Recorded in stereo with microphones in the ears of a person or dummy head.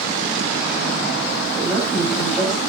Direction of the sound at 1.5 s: Centre (ahead or behind).